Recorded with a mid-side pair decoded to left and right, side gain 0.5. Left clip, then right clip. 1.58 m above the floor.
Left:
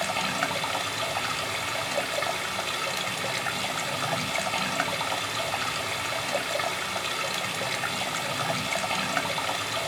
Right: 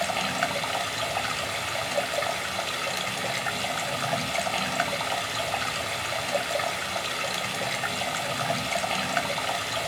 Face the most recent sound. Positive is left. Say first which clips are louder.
# right 1 dB
turn(degrees=0)